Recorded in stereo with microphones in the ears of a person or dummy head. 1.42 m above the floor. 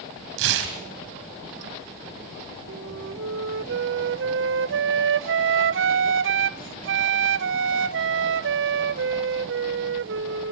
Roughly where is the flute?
Right.